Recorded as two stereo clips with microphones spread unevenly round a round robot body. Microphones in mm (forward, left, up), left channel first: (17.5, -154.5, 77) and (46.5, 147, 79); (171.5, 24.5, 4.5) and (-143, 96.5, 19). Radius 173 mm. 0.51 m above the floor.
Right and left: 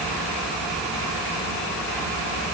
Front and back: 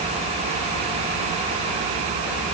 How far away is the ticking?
I don't hear ticking.